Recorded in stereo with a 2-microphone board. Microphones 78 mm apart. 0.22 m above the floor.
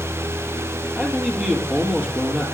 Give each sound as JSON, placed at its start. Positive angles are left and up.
{"t": 1.0, "sound": "a man speaking", "side_deg": -10, "distance_m": 5.5}